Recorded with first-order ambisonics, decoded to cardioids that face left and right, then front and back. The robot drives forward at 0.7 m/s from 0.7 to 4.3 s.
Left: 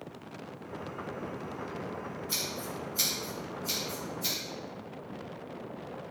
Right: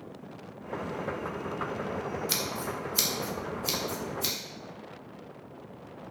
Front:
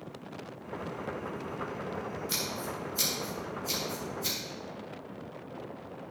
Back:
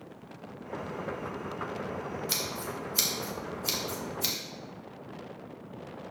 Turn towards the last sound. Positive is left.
turn(degrees=-145)